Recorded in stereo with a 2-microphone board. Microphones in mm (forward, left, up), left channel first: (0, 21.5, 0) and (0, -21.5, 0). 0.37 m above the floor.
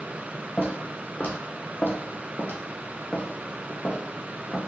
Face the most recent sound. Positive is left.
turn(degrees=35)  # may be behind; listen again after turning